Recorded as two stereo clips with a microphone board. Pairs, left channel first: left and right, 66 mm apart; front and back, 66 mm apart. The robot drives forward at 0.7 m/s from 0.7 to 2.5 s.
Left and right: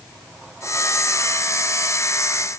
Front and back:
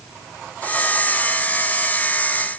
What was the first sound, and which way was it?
Only background noise.